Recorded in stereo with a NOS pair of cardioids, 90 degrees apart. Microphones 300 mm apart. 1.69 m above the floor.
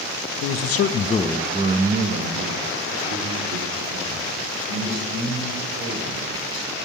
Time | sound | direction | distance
0.4 | a man speaking | 70° left | 0.7 m